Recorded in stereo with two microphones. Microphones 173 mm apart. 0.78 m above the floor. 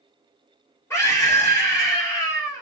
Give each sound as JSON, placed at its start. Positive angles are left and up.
{"t": 0.9, "sound": "a scream", "side_deg": 15, "distance_m": 1.7}